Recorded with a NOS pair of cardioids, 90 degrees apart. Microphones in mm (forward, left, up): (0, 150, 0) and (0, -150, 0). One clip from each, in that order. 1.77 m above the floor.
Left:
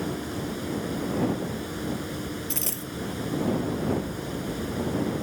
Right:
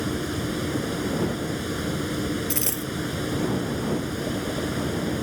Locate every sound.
0.0 s a fan: 50° right
2.5 s a dropped coin: 20° right